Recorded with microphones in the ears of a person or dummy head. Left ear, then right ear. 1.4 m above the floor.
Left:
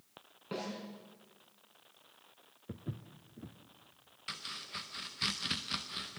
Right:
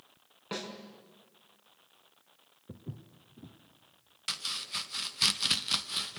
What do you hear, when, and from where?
0.5 s a snare drum: 35° right (ahead or behind), 5 m
2.7 s footsteps: 20° left (ahead or behind), 1.4 m
4.3 s chopping: 20° right (ahead or behind), 0.7 m